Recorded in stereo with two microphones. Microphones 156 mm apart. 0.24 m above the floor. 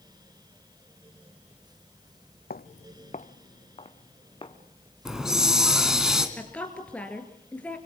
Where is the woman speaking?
10° left (ahead or behind), 3.5 m.